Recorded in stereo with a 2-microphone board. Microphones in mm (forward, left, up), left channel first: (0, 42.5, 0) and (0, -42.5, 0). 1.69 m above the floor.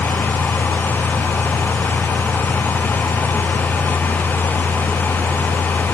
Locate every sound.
Only background noise.